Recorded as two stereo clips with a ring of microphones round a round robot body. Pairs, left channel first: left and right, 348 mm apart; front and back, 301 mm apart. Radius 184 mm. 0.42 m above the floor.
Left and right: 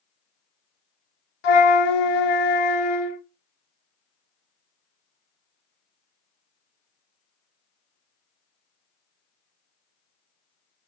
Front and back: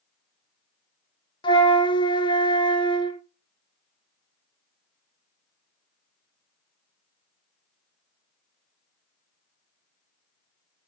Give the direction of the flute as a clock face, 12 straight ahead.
9 o'clock.